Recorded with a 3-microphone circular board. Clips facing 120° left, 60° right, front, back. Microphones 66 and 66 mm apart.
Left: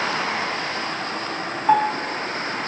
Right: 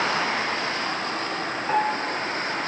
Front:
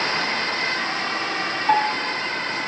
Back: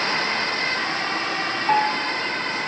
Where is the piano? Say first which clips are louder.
Left 6 dB, front 1 dB; 90° left, 4.5 m.